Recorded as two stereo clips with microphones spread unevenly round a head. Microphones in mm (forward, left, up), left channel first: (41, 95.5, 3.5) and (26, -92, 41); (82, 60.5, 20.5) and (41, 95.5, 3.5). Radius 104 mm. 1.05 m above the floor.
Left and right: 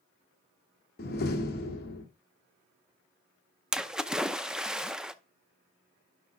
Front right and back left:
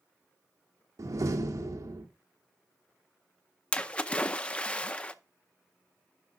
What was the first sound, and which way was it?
A door slam, 130° left.